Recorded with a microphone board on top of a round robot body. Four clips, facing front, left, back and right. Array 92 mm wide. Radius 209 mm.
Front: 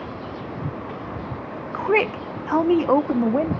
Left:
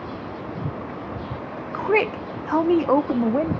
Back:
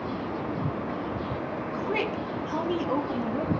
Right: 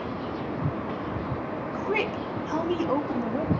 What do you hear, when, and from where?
1.7 s a woman speaking: 40° left, 0.9 m